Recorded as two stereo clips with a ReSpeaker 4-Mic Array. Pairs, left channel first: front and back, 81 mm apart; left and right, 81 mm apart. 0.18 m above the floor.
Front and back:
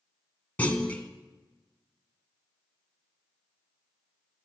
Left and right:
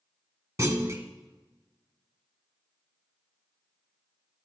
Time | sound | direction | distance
0.6 | a clunk | 60° right | 1.1 m